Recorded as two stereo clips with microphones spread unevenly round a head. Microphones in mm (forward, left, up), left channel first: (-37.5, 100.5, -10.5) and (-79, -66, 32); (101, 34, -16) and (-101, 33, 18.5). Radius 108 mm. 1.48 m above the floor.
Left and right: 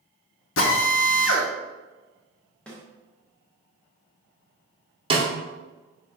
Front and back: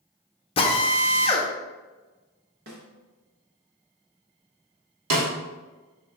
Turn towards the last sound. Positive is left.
turn(degrees=-165)